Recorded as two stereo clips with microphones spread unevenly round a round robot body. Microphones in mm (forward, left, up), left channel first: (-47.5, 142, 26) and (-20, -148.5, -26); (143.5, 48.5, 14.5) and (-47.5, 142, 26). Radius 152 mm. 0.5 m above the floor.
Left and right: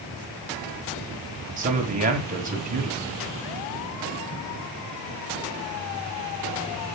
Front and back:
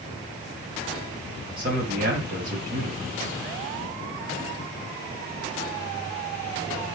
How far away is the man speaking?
About 3 m.